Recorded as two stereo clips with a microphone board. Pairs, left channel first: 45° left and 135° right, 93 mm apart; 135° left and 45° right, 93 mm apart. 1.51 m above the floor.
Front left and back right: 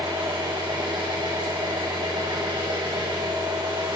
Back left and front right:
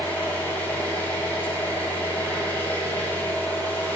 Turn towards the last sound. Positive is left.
turn(degrees=-160)